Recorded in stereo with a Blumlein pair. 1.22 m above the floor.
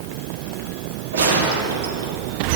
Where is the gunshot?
65° right, 1.4 m.